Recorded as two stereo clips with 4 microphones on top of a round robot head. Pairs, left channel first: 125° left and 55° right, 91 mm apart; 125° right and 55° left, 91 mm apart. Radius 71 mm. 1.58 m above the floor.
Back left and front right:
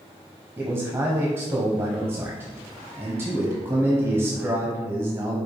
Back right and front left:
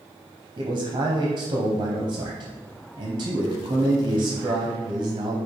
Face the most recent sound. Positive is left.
turn(degrees=5)